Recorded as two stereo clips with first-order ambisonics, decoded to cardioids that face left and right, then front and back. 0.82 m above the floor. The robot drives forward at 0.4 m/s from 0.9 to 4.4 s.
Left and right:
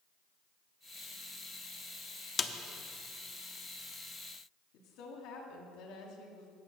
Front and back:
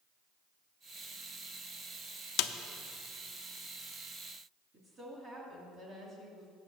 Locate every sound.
2.4 s a snare drum: 20° left, 0.6 m; by 2.5 s 25° left, 0.5 m
4.7 s a woman speaking: 110° left, 1.9 m